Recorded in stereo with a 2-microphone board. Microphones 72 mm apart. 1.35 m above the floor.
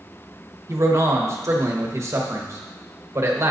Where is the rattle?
No rattle in this recording.